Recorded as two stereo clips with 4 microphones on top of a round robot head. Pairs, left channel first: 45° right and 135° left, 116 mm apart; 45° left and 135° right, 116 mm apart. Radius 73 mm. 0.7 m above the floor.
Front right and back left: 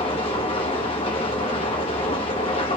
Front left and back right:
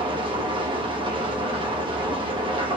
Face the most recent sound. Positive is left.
turn(degrees=-90)